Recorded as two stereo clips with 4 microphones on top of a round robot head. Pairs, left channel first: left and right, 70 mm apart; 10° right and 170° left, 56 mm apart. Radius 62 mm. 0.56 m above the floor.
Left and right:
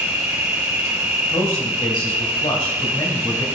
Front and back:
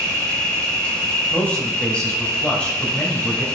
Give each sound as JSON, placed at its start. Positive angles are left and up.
{"t": 0.0, "sound": "an insect", "azimuth_deg": -75, "distance_m": 2.0}
{"t": 1.3, "sound": "a man speaking", "azimuth_deg": 65, "distance_m": 3.5}